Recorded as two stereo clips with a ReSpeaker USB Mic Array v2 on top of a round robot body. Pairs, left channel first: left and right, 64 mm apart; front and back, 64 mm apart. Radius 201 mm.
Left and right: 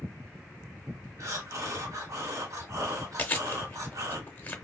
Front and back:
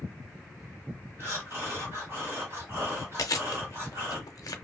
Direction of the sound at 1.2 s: 130° right.